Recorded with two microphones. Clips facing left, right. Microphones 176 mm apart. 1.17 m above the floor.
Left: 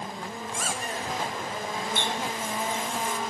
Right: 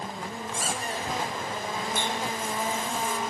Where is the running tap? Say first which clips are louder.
Even; 70° left (ahead or behind), 1.4 m.